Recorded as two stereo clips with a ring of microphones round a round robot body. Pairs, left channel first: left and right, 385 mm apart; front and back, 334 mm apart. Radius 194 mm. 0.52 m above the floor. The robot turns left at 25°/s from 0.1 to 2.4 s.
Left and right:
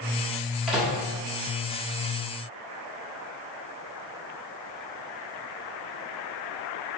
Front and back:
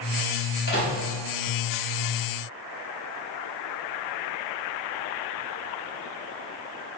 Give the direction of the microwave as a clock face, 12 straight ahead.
12 o'clock.